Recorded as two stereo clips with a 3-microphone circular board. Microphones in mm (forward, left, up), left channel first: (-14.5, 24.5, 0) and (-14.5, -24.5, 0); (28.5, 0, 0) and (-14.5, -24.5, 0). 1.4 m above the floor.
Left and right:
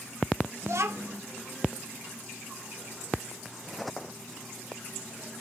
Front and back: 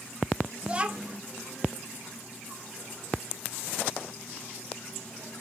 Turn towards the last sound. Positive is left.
turn(degrees=-85)